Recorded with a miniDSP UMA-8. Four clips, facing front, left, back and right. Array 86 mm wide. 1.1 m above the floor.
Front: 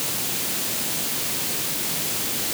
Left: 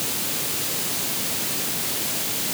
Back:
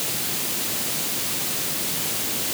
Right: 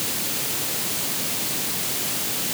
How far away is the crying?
No crying in this recording.